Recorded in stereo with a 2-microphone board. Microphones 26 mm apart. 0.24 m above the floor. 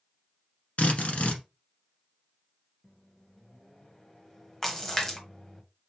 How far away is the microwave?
About 1.0 m.